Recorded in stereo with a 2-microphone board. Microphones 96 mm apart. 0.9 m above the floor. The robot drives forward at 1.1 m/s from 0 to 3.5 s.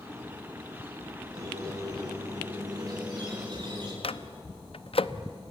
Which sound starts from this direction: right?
A squeak, at 1.3 s.